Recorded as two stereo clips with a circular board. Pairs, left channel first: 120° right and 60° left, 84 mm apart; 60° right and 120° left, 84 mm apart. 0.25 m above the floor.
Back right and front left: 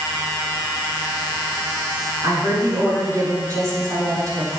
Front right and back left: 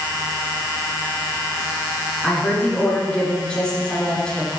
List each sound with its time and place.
2.2 s a woman speaking: 20° left, 4.5 m